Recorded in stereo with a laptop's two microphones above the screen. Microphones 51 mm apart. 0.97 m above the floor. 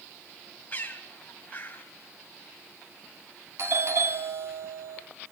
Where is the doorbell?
60° right (ahead or behind), 3.5 m.